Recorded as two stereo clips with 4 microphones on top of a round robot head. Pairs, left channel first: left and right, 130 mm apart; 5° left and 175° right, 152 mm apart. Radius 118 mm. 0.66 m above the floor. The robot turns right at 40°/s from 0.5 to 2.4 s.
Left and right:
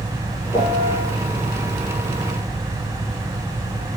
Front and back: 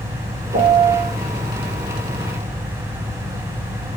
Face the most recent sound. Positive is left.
turn(degrees=-135)